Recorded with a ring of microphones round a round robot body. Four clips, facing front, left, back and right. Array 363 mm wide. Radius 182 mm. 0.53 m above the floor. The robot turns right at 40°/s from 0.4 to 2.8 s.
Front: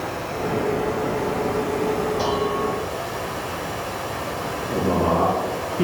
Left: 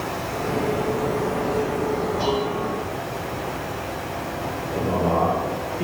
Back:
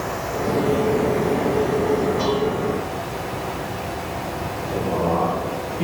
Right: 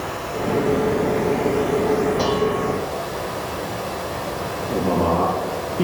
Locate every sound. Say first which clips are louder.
0.0 s running water: right 1 dB, back 2 dB; 170° right, 2 m; by 5.8 s 70° right, 2 m
2.2 s dishes clattering: right 3 dB, back 1 dB; 95° right, 7 m; by 2.7 s 75° right, 7 m
4.7 s a man speaking: right 3 dB, front 1 dB; 65° right, 6 m